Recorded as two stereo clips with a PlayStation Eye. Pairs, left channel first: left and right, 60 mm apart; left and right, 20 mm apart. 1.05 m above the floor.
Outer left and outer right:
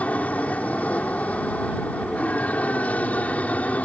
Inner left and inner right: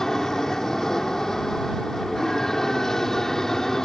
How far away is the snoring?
I don't hear snoring.